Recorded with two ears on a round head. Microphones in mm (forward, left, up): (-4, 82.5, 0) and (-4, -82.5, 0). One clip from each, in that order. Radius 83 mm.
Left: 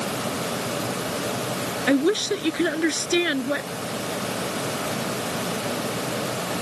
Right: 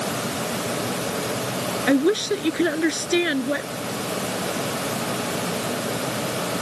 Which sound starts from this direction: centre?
A woman speaking, at 1.9 s.